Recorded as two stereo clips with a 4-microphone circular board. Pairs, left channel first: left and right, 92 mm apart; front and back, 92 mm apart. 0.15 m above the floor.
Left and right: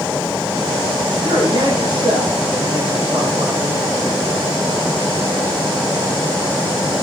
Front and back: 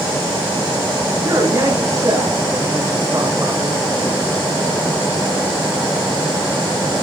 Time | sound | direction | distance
1.2 | a man speaking | 120° right | 7 m